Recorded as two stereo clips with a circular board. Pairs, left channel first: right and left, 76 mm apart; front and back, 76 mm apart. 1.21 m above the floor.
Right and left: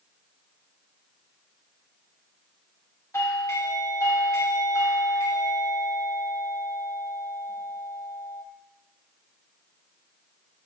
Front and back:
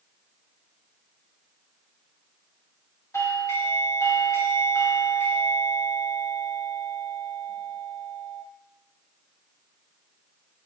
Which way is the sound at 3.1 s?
45° right.